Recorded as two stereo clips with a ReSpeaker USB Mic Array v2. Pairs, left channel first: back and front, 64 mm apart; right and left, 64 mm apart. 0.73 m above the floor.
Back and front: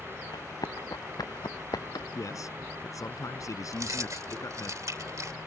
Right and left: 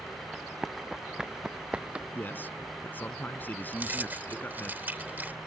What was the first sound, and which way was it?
Running footsteps, 175° left.